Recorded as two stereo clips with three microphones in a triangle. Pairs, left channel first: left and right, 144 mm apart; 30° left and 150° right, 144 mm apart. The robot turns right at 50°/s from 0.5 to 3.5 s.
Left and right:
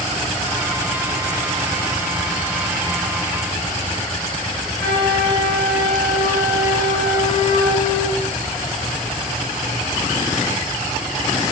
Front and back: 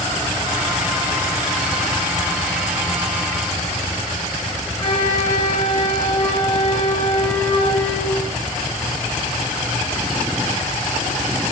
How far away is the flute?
About 3 m.